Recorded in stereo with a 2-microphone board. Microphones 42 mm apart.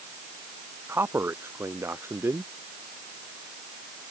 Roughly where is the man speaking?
Right.